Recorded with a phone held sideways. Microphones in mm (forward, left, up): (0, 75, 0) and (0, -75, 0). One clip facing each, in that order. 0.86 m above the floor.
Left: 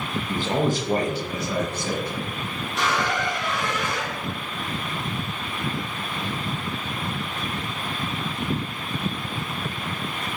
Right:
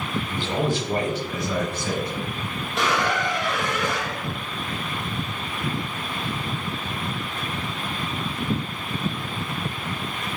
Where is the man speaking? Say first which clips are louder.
Left 3 dB; 40° left (ahead or behind), 0.7 m; by 2.2 s 25° left (ahead or behind), 2 m.